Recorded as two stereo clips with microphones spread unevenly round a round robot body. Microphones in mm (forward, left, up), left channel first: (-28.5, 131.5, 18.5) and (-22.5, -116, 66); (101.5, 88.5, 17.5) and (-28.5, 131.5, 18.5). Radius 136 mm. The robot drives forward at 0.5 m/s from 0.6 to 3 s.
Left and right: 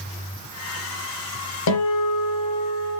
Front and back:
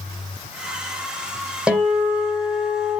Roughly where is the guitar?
Left.